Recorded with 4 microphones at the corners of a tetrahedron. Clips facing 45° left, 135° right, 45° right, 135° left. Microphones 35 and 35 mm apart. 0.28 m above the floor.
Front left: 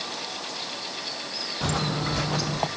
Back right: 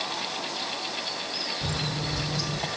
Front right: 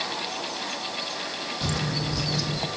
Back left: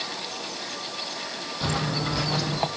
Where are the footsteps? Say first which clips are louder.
Front left 7 dB, back left 3 dB; 75° left, 1.5 m; by 2.7 s 85° left, 1.9 m.